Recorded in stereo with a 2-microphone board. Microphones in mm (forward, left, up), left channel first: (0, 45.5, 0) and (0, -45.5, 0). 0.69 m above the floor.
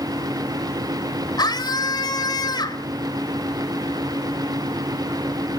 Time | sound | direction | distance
1.4 | a scream | 50° left (ahead or behind) | 3.5 m